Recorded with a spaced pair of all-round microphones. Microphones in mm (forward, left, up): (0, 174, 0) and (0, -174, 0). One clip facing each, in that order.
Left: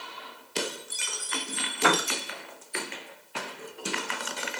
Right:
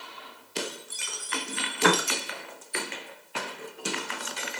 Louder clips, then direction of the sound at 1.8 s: Right 2 dB; 25° right (ahead or behind).